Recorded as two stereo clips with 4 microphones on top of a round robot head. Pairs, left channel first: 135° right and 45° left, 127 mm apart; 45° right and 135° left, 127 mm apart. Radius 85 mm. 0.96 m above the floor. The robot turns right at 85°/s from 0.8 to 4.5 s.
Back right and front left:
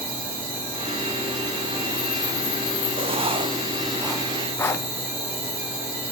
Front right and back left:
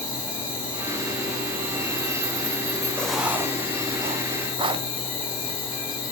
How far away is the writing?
About 0.9 m.